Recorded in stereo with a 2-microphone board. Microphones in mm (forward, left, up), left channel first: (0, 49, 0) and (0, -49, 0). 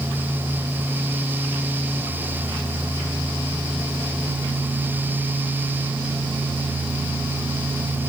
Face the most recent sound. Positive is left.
No sound to turn to.